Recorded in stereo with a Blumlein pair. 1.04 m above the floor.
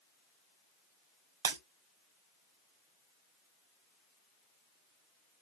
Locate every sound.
1.4 s breaking glass: 60° right, 1.4 m